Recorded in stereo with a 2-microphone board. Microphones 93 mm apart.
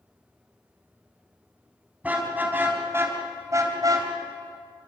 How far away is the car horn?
About 5.5 m.